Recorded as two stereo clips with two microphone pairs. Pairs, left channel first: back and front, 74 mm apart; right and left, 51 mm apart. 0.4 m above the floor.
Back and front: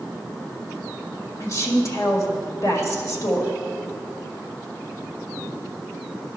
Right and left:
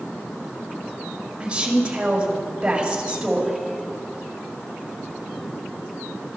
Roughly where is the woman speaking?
Behind left.